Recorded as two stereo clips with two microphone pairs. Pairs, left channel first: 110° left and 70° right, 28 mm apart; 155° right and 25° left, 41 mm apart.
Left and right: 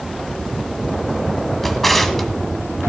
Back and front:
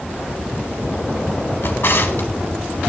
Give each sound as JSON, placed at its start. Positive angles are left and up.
{"t": 1.6, "sound": "a drawer", "azimuth_deg": -165, "distance_m": 1.2}